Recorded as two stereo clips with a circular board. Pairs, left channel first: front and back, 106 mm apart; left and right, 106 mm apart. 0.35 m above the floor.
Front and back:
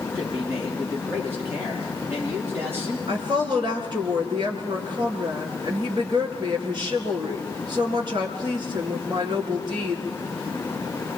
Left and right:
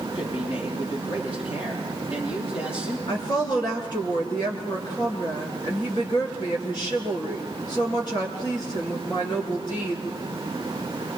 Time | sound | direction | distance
0.1 | a man speaking | 110° left | 9.5 m
3.1 | a woman speaking | 135° left | 4.5 m